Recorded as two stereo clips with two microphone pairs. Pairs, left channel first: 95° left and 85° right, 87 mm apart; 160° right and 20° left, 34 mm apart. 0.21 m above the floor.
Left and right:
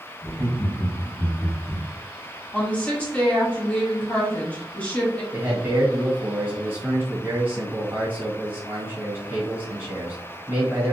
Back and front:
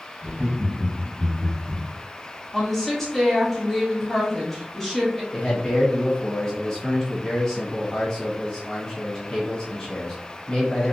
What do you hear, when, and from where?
0.2 s laughter: 5° right, 1.7 m
2.5 s a woman speaking: 130° left, 1.1 m
5.3 s a man speaking: 110° right, 1.4 m